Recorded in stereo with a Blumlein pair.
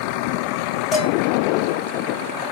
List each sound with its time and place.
0.9 s dishes clattering: 15° left, 1.2 m